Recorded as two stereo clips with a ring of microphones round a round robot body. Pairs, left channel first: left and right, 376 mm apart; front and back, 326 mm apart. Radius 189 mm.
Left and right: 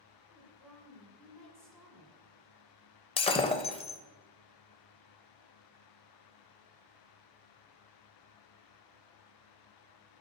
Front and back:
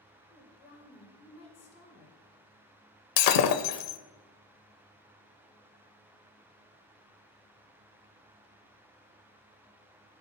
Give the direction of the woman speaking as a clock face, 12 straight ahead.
12 o'clock.